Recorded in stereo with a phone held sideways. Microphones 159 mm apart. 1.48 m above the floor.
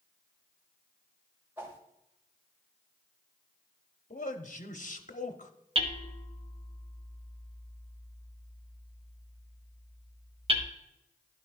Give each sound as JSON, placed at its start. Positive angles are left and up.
{"t": 1.6, "sound": "a whoosh", "side_deg": -15, "distance_m": 1.1}
{"t": 4.1, "sound": "a man speaking", "side_deg": 55, "distance_m": 0.8}
{"t": 5.8, "sound": "hammering", "side_deg": -35, "distance_m": 0.9}